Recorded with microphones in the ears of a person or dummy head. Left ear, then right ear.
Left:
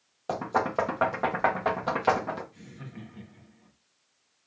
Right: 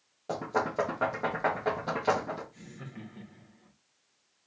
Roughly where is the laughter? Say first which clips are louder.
Even; centre.